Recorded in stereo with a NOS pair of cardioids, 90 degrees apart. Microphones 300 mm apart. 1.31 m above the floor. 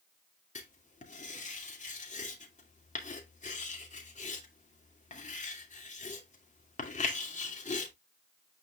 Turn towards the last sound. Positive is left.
turn(degrees=25)